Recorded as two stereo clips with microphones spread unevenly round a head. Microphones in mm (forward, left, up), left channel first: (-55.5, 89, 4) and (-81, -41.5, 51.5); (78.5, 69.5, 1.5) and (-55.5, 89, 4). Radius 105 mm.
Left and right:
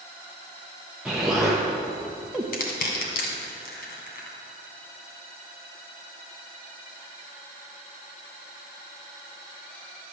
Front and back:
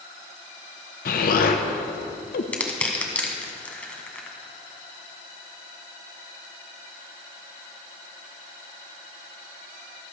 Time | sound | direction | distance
1.1 | an explosion | 20° right | 0.8 m
2.5 | crushing | 70° left | 2.0 m